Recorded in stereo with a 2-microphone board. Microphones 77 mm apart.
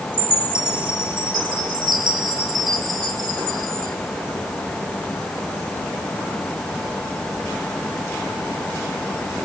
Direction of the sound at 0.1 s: 75° right (ahead or behind).